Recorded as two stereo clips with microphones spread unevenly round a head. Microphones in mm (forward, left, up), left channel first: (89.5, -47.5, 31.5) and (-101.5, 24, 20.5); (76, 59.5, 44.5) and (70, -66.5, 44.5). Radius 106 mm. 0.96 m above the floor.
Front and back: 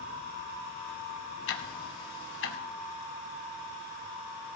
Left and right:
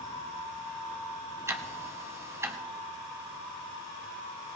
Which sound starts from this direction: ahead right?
Ticking, at 1.5 s.